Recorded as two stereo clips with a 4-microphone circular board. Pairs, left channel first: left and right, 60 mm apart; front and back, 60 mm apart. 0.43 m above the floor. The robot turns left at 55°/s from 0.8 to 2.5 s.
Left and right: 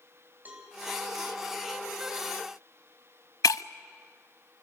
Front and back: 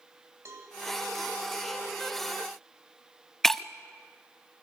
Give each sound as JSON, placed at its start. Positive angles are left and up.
{"t": 0.5, "sound": "a cowbell", "azimuth_deg": -145, "distance_m": 3.5}
{"t": 3.4, "sound": "breaking glass", "azimuth_deg": 85, "distance_m": 0.5}